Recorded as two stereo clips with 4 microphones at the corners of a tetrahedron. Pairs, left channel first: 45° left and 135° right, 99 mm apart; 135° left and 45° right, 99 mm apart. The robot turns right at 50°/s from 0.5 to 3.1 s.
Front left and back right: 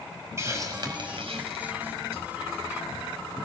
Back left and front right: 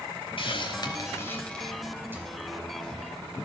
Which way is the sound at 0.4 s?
165° left.